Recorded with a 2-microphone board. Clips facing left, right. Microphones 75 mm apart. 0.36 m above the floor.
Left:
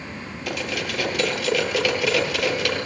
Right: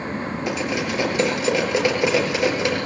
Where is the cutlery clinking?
25° right (ahead or behind), 5.5 m.